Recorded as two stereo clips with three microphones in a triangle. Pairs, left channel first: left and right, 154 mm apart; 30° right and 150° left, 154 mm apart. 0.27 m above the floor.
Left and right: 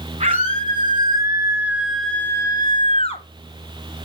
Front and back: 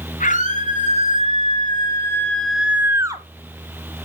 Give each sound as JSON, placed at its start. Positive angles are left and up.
{"t": 0.2, "sound": "a scream", "azimuth_deg": -50, "distance_m": 3.0}